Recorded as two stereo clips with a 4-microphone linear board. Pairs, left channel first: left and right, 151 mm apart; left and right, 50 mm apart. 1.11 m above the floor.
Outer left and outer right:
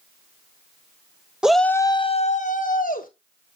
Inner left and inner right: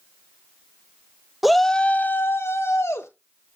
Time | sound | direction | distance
1.4 | a shout | 5° right (ahead or behind) | 0.8 m